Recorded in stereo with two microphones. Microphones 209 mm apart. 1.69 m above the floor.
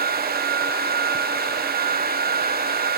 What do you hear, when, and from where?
Only background noise.